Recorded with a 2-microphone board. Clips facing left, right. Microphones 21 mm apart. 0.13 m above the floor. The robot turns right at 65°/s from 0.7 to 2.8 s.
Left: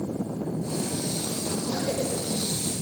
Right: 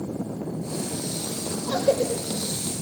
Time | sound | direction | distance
1.7 | a cough | 70° right (ahead or behind) | 4.5 m